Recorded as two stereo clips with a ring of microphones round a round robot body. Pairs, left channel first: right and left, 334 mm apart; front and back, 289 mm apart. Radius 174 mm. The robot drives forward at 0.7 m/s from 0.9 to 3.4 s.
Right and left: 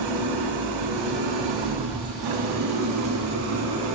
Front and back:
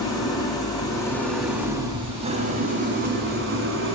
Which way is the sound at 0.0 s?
75° left.